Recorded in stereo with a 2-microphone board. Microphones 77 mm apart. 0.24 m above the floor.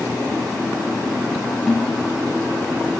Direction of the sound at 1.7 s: Centre (ahead or behind).